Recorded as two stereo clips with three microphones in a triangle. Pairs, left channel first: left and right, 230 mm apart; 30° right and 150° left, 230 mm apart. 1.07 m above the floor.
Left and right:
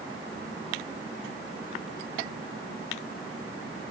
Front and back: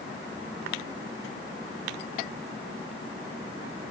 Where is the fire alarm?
I don't hear a fire alarm.